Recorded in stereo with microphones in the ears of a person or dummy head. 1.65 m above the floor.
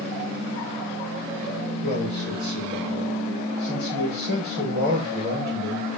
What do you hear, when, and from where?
1.8 s a man speaking: 55° right (ahead or behind), 6 m